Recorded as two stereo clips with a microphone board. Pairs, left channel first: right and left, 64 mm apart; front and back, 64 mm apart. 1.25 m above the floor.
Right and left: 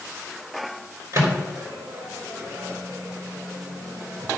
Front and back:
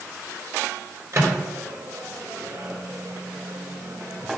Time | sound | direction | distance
1.1 | a microwave | 130° left | 3 m